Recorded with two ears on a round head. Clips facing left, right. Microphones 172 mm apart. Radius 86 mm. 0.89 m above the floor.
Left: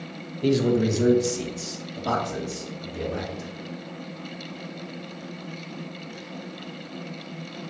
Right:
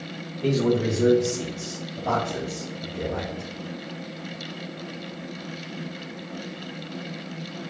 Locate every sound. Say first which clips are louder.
0.4 s a man speaking: left 1 dB; 20° left (ahead or behind), 1.0 m; by 3.5 s 55° left (ahead or behind), 3 m